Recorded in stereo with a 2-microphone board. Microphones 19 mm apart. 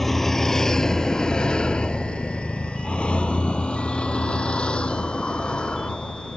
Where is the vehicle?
10° left (ahead or behind); by 6.4 s 60° left (ahead or behind).